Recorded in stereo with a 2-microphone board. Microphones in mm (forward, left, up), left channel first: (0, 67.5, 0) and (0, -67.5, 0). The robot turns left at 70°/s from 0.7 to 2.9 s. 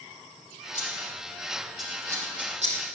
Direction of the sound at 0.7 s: 70° left (ahead or behind).